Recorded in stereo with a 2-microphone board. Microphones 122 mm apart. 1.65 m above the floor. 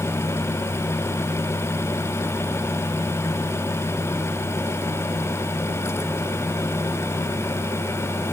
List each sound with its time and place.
Only background noise.